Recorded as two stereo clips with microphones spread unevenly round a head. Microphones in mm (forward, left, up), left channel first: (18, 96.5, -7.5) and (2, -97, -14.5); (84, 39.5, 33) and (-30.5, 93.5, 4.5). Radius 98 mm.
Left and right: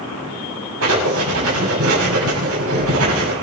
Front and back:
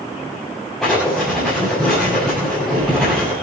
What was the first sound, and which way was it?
Writing, 115° right.